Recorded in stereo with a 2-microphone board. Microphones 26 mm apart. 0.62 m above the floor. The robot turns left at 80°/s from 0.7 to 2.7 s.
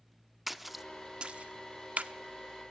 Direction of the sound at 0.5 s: Centre (ahead or behind).